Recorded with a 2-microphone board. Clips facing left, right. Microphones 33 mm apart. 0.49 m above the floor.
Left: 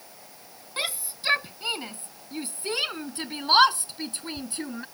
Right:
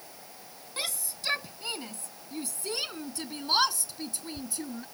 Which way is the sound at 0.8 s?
25° left (ahead or behind).